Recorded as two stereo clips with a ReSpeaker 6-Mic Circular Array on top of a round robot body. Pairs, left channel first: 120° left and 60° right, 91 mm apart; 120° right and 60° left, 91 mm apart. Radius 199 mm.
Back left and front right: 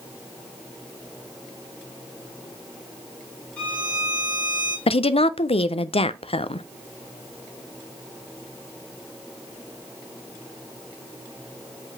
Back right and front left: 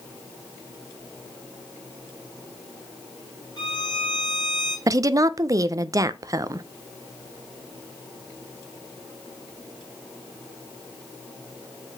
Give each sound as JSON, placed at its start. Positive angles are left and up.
{"t": 3.6, "sound": "a violin", "azimuth_deg": -160, "distance_m": 4.0}
{"t": 4.9, "sound": "a woman speaking", "azimuth_deg": 115, "distance_m": 0.5}